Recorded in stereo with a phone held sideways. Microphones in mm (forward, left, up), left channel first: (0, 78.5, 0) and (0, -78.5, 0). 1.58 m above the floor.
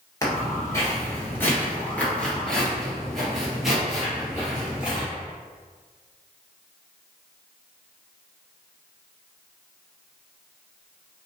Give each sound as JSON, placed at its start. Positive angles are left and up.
{"t": 0.2, "sound": "footsteps", "side_deg": 25, "distance_m": 1.6}